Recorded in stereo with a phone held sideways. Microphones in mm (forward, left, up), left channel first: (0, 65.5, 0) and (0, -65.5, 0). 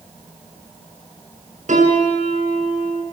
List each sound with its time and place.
1.7 s a piano: 75° right (ahead or behind), 6.5 m